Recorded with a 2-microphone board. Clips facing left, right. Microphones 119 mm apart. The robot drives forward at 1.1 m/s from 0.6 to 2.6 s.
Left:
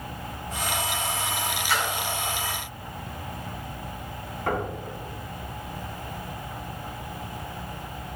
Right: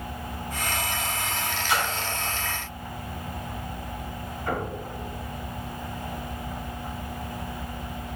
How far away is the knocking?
About 3 m.